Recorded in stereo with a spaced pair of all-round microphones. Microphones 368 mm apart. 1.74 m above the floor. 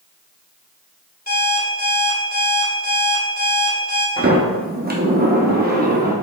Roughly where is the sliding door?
Right.